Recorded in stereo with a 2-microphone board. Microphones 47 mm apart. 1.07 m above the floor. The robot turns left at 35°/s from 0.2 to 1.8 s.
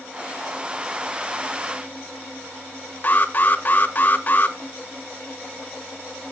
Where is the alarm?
35° left (ahead or behind), 1.4 m.